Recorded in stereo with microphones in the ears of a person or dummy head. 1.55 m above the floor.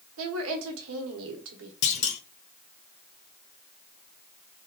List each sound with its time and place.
0.2 s a woman speaking: 80° right, 1.1 m
1.8 s a clunk: 40° left (ahead or behind), 0.6 m